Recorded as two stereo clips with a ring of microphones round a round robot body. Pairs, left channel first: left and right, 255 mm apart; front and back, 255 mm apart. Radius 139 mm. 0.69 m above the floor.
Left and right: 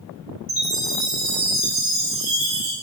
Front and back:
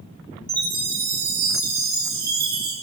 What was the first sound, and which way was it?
A chime, 125° right.